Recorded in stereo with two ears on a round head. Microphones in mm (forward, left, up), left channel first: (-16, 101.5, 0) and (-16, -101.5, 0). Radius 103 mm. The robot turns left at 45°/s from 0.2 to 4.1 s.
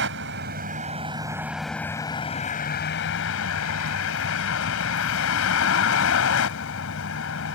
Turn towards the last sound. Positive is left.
turn(degrees=70)